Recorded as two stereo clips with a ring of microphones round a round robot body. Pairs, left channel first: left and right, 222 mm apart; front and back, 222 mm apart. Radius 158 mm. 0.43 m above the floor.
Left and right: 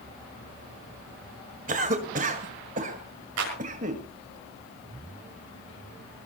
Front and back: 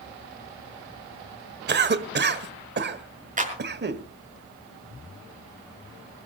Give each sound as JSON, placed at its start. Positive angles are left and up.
{"t": 1.7, "sound": "a cough", "azimuth_deg": -150, "distance_m": 1.7}
{"t": 3.4, "sound": "a clap", "azimuth_deg": -125, "distance_m": 6.0}